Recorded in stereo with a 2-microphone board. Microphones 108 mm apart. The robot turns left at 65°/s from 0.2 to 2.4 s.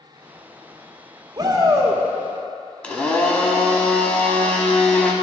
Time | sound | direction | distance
1.4 | a shout | 90° right | 0.9 m
2.8 | a blender | 10° left (ahead or behind) | 0.9 m